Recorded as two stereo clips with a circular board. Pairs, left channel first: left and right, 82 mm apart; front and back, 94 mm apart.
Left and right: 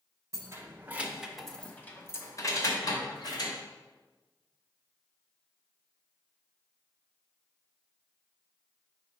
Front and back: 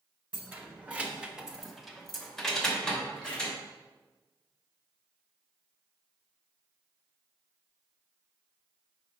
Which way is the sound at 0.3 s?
115° right.